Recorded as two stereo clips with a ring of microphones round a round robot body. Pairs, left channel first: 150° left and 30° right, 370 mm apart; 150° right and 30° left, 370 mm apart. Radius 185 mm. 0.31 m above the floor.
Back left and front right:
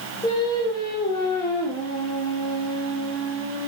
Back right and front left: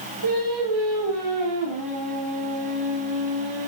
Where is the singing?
70° left, 10 m.